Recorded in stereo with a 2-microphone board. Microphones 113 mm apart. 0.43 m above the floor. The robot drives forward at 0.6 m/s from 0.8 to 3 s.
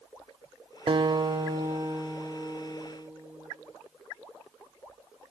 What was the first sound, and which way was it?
A guitar, 50° right (ahead or behind).